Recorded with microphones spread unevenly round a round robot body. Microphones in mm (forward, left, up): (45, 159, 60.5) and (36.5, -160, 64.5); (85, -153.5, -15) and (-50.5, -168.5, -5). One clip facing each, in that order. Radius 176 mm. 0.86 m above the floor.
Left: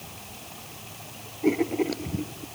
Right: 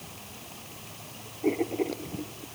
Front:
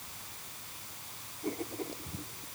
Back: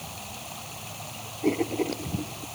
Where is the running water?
Straight behind.